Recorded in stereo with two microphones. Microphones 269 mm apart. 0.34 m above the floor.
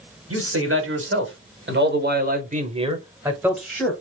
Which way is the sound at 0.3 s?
55° right (ahead or behind).